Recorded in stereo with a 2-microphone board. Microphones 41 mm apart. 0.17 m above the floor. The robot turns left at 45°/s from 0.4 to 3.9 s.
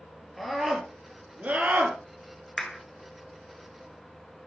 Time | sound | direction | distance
0.4 | a scream | 5° left | 4 m
2.6 | a clap | 10° left (ahead or behind) | 1.7 m